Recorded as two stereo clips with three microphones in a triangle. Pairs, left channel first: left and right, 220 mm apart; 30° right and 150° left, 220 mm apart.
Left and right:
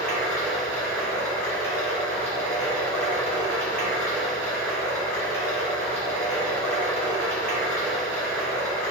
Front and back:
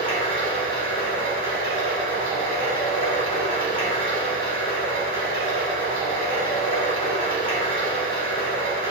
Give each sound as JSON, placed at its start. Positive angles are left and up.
{"t": 0.0, "sound": "running water", "azimuth_deg": 170, "distance_m": 2.5}